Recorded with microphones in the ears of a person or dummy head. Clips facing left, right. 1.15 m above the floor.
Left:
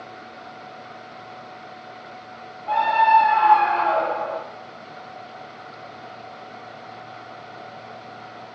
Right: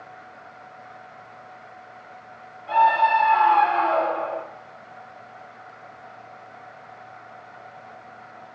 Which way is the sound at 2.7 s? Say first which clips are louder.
Left 1 dB; 20° right (ahead or behind).